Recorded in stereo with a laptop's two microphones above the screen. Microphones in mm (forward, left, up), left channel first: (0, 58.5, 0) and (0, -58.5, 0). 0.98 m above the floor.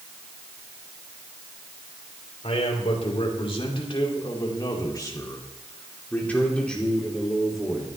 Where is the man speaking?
60° left (ahead or behind), 3 m; by 7.9 s 5° right (ahead or behind), 2.5 m.